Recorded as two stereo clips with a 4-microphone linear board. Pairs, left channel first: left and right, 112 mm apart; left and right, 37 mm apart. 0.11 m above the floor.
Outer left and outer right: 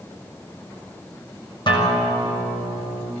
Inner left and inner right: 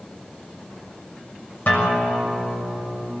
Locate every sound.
1.7 s a guitar: 40° left (ahead or behind), 6.5 m